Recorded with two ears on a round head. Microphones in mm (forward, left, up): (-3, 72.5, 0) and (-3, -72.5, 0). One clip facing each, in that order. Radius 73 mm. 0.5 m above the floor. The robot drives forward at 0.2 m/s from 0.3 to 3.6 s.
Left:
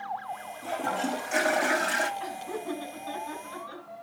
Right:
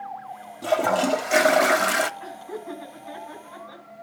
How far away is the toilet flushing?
About 0.8 m.